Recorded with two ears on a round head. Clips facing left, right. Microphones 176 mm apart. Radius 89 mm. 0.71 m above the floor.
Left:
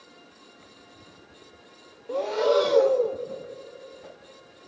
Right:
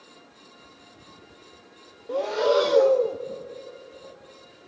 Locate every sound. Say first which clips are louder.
2.1 s breathing: even; centre (ahead or behind), 0.7 m